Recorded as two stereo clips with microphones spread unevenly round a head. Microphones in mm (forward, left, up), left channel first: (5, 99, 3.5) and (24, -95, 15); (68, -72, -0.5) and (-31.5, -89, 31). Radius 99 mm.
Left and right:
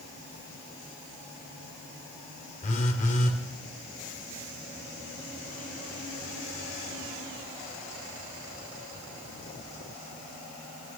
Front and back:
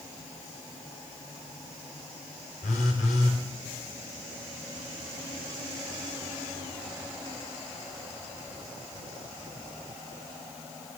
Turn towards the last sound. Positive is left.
turn(degrees=45)